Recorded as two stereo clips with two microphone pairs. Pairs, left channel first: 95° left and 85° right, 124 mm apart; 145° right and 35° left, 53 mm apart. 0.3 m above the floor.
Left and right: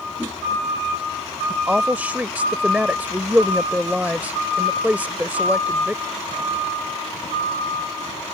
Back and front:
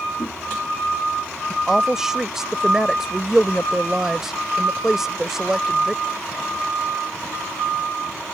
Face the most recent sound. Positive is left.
turn(degrees=-30)